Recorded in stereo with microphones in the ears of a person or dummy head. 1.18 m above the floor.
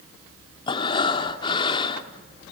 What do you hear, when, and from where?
0.7 s breathing: 30° left (ahead or behind), 1.3 m